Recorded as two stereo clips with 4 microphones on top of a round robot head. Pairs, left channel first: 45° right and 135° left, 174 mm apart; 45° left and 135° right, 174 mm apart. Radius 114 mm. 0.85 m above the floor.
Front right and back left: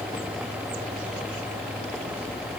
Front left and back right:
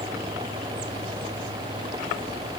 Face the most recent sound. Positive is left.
No sound to turn to.